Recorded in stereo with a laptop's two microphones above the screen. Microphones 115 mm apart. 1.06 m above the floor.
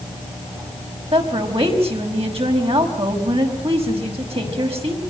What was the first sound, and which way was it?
A woman speaking, 65° right (ahead or behind).